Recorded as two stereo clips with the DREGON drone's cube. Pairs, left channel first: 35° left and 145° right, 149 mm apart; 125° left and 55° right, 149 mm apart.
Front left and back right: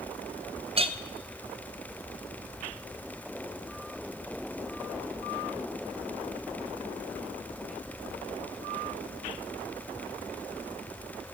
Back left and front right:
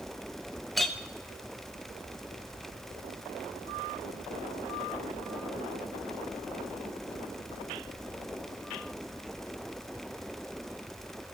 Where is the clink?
145° right, 0.5 m.